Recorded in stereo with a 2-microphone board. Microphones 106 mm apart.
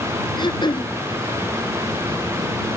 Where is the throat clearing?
45° left (ahead or behind).